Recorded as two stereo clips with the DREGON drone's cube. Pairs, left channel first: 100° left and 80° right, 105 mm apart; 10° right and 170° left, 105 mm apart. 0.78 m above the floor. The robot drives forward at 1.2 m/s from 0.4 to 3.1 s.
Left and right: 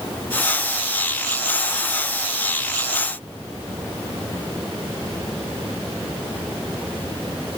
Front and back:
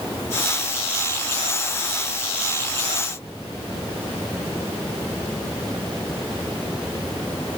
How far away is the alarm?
I don't hear an alarm.